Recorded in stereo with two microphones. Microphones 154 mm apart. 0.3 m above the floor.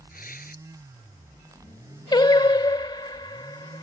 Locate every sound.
0.1 s tearing paper: 70° left (ahead or behind)
2.1 s singing: 30° left (ahead or behind)